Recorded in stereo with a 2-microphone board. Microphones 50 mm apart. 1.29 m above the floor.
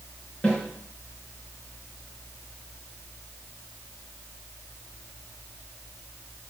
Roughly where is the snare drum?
Left.